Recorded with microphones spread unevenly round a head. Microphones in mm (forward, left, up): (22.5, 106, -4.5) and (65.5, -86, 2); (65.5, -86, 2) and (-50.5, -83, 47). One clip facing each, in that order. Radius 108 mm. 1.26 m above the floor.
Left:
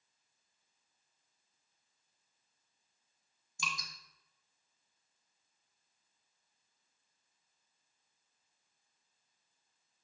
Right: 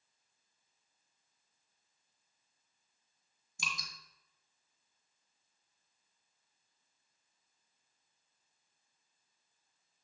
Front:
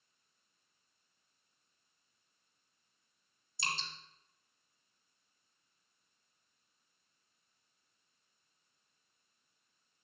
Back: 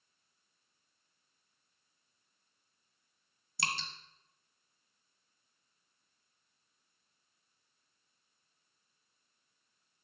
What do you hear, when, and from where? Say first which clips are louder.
3.6 s dripping: left 2 dB, back 2 dB; 155° right, 1.3 m